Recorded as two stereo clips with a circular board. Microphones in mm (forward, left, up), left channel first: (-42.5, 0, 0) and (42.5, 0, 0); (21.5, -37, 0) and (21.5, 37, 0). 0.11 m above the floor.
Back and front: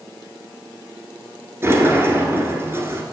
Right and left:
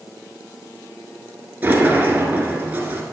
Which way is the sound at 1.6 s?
40° left.